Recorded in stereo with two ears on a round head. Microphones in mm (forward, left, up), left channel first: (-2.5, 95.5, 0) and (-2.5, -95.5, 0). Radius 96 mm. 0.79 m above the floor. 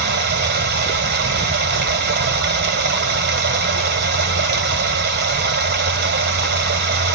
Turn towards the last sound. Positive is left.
turn(degrees=-50)  # may be behind; listen again after turning